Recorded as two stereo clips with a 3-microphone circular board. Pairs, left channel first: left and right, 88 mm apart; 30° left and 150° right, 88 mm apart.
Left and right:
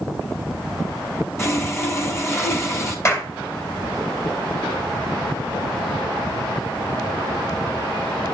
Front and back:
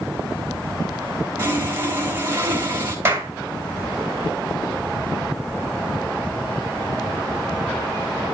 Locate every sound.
1.4 s sawing: 145° left, 3 m
3.0 s a clap: 145° left, 2 m